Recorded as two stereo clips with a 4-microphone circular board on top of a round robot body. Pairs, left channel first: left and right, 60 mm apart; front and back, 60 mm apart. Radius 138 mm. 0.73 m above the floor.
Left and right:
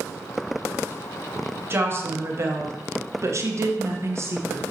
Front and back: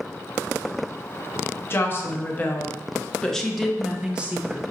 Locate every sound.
1.7 s a woman speaking: 45° right, 1.6 m; by 4.6 s 125° right, 1.2 m